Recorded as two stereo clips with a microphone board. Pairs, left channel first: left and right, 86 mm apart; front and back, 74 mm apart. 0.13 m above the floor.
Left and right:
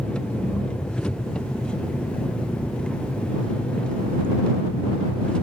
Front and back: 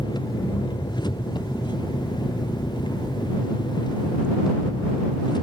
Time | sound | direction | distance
0.0 | an engine running | 10° left | ?